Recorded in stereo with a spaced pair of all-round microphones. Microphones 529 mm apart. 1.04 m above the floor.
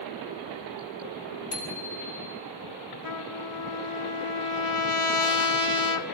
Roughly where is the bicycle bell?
Left.